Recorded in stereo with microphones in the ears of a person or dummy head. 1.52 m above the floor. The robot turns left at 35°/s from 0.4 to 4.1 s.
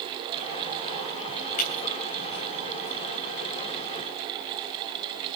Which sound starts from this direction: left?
Breaking glass, at 1.6 s.